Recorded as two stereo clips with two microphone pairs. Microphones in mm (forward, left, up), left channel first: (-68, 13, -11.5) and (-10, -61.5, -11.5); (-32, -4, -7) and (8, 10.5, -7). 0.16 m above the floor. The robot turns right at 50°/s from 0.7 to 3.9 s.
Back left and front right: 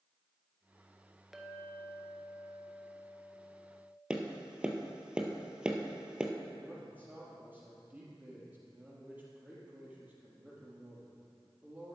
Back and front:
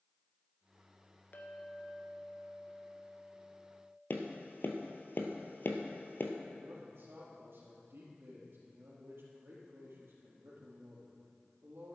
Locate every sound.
1.3 s a clink: 140° right, 1.2 m; by 4.0 s 10° right, 1.2 m
4.1 s tapping: 130° right, 1.3 m
6.6 s a man speaking: 20° left, 4 m